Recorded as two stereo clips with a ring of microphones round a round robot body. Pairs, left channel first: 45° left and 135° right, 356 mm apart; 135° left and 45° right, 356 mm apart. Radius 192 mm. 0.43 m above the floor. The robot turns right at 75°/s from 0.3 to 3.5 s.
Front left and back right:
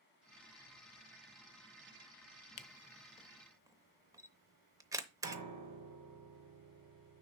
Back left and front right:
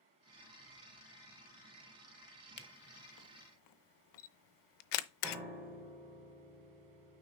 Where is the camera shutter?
75° left, 0.7 m; by 5.4 s 145° left, 0.7 m.